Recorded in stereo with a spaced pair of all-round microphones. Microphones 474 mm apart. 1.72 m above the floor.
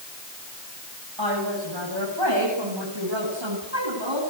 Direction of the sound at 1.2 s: 55° right (ahead or behind).